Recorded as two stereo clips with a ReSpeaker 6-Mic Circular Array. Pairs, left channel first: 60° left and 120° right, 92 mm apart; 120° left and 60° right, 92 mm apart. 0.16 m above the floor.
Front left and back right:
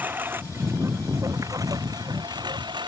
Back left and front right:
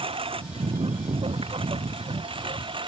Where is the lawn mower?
50° right; by 2.9 s 85° right.